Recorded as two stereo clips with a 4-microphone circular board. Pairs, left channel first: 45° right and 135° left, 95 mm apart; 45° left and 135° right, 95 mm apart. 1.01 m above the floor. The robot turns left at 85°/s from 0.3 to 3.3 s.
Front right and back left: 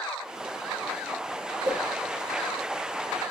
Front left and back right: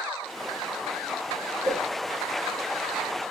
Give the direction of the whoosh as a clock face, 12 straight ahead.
6 o'clock.